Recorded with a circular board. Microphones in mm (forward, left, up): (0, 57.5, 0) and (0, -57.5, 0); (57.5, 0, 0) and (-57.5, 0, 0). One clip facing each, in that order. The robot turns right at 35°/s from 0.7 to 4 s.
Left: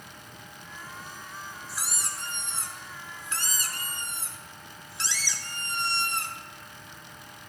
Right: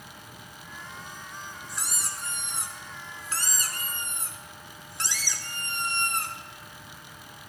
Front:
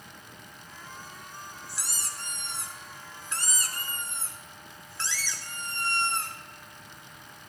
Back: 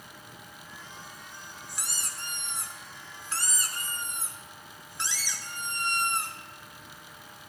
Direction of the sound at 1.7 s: 170° left.